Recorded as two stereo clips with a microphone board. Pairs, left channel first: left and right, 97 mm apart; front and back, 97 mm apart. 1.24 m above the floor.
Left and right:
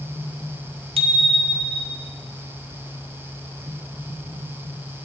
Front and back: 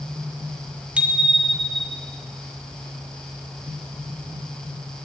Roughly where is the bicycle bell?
Right.